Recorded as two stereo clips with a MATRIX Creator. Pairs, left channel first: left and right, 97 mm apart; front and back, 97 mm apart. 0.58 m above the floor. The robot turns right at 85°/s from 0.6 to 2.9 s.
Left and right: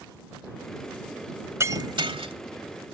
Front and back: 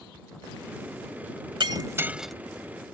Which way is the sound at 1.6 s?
150° right.